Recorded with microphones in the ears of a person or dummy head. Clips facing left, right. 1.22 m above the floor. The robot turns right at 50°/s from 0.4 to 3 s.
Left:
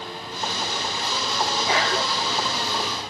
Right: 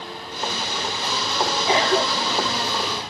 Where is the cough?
15° right (ahead or behind); by 2.5 s 55° right (ahead or behind).